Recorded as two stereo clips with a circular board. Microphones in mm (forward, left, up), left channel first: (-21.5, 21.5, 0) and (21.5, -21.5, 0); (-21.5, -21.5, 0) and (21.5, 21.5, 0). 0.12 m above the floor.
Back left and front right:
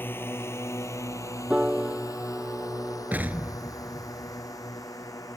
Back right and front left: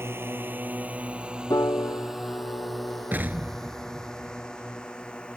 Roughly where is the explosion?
Ahead.